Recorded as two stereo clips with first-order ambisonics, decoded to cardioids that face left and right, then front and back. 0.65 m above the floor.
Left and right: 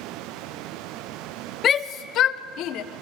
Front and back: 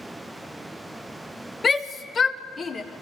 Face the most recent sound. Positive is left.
turn(degrees=70)